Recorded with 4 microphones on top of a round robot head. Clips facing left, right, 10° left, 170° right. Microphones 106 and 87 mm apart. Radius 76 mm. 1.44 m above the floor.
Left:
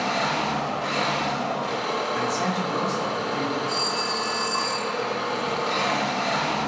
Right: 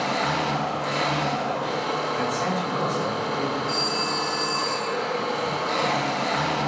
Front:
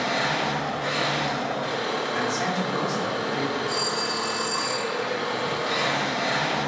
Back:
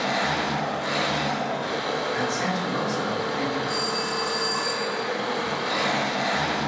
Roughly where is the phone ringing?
Ahead left.